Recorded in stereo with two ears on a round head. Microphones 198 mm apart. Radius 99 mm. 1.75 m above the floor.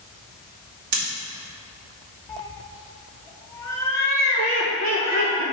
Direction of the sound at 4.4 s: 60° right (ahead or behind).